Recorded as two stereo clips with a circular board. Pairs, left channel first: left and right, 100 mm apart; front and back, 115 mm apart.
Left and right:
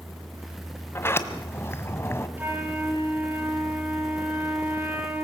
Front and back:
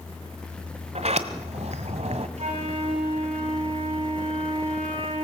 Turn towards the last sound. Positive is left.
turn(degrees=-160)